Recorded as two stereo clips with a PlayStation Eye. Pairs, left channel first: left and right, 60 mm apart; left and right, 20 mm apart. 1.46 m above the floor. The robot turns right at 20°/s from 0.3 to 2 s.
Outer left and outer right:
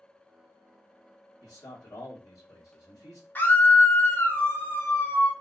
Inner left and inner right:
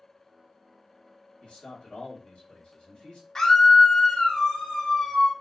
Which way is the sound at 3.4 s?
35° left (ahead or behind).